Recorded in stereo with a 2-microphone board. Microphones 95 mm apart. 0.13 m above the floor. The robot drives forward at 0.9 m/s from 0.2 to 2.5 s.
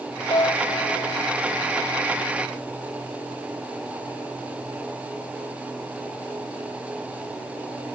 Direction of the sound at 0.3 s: 60° left (ahead or behind).